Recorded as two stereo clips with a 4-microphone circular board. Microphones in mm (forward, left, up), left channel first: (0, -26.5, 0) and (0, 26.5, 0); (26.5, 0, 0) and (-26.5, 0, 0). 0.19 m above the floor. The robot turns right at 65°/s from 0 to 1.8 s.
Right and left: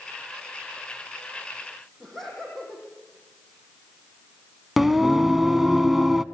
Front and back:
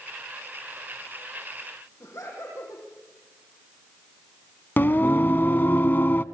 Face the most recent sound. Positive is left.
turn(degrees=5)